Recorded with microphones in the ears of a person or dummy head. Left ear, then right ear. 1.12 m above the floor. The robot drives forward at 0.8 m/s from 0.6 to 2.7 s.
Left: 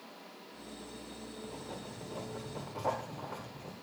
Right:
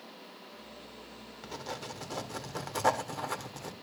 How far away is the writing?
About 1.7 m.